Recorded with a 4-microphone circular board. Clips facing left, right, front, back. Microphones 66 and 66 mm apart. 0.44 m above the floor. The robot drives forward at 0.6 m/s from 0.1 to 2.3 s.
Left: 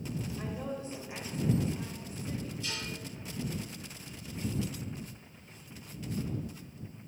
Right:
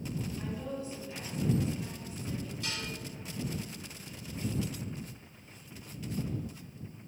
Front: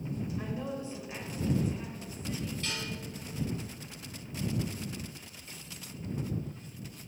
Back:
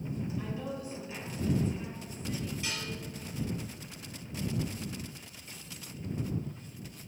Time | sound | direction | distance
0.4 | a woman speaking | 50° left | 2 m
2.6 | dishes clattering | 105° right | 3 m